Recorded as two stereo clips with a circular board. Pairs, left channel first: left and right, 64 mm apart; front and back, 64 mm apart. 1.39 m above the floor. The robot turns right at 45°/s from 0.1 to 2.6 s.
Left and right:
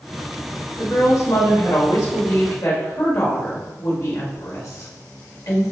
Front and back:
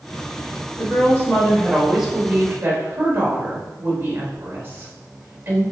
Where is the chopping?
No chopping in this recording.